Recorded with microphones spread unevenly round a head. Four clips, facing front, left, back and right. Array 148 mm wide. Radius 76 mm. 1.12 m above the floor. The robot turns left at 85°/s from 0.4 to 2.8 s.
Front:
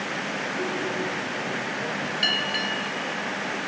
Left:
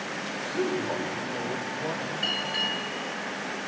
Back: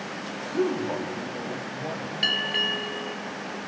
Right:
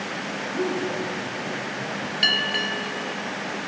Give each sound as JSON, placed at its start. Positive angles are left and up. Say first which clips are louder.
{"t": 0.5, "sound": "a man speaking", "louder": "right 2 dB, back 6 dB", "azimuth_deg": 175, "distance_m": 5.5}
{"t": 2.2, "sound": "a bell", "louder": "right 5 dB, front 2 dB", "azimuth_deg": -95, "distance_m": 1.5}